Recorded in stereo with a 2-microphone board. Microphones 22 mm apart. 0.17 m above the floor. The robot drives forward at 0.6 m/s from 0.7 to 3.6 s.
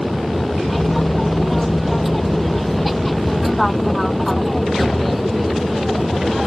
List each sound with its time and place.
0.0 s an aircraft: 5° right (ahead or behind)